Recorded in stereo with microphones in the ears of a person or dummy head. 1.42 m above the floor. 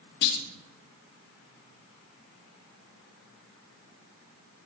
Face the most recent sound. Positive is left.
turn(degrees=60)  # may be behind; listen again after turning